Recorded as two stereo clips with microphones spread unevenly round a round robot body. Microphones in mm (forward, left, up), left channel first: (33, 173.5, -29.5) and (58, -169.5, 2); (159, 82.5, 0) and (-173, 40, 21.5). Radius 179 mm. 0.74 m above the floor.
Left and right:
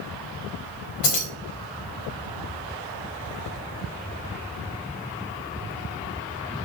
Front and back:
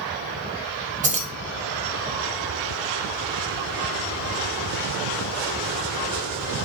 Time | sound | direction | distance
1.0 | keys jangling | 115° left | 1.3 m